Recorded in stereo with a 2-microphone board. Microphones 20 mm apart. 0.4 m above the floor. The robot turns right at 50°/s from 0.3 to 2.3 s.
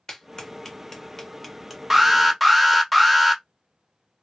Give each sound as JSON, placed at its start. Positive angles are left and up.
{"t": 0.1, "sound": "a clap", "side_deg": 35, "distance_m": 1.0}
{"t": 1.9, "sound": "an alarm", "side_deg": -15, "distance_m": 0.7}